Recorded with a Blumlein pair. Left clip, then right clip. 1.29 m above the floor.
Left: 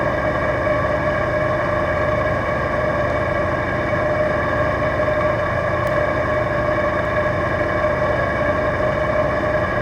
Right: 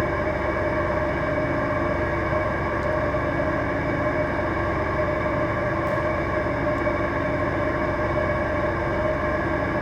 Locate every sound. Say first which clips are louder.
0.0 s an engine running: left 5 dB; 60° left, 0.8 m